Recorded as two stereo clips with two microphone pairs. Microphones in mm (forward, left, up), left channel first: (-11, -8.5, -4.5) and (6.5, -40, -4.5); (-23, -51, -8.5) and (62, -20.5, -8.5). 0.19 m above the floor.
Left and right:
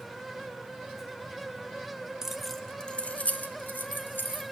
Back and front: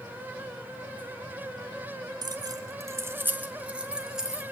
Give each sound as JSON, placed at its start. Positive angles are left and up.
{"t": 2.2, "sound": "keys jangling", "azimuth_deg": 10, "distance_m": 1.0}